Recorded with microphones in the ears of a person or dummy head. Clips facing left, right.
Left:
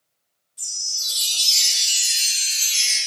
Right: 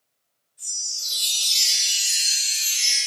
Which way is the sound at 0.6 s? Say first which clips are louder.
Left 2 dB; 80° left.